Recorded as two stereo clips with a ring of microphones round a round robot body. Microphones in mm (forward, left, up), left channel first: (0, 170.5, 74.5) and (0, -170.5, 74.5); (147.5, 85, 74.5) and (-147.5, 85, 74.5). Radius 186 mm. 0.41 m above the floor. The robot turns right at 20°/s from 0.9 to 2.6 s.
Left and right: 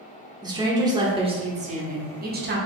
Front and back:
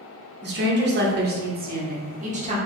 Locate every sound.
0.4 s a woman speaking: 160° right, 1.0 m; by 2.6 s 130° right, 1.0 m